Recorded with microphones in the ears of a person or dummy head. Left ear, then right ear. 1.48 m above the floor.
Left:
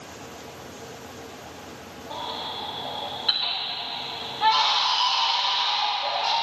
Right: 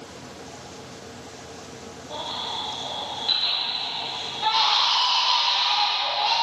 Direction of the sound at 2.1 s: 40° left (ahead or behind).